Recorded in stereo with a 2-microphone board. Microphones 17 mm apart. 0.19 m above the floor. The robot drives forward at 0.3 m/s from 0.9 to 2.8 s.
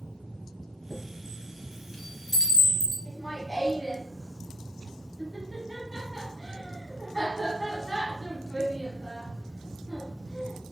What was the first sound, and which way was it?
A chime, 20° left (ahead or behind).